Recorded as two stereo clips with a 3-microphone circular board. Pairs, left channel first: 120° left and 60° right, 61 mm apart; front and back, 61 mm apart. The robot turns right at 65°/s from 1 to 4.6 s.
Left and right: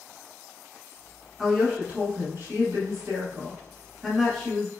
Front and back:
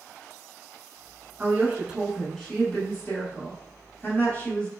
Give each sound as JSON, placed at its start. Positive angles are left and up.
{"t": 1.4, "sound": "a woman speaking", "azimuth_deg": -150, "distance_m": 1.3}